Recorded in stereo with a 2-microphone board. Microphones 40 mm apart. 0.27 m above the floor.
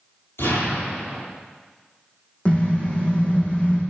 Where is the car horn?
25° left (ahead or behind), 7 m.